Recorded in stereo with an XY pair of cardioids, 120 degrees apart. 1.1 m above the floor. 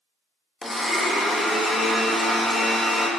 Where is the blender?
15° left, 0.6 m.